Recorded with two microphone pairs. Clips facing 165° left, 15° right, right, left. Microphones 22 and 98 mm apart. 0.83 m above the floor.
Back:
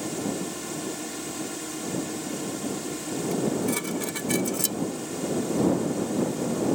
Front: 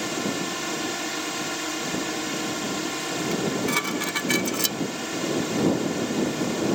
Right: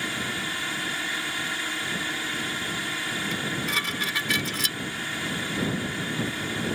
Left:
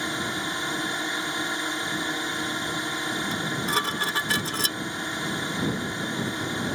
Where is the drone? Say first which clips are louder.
Front 3 dB, left 2 dB; 25° left.